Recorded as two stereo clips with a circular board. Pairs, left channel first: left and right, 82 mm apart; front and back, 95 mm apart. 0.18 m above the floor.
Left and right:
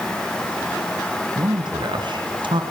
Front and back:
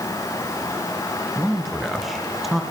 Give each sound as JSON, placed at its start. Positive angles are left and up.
{"t": 1.4, "sound": "a man speaking", "azimuth_deg": -90, "distance_m": 3.0}